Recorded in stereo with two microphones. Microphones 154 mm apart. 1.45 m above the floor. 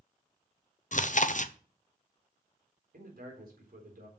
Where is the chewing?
55° left (ahead or behind), 0.6 m.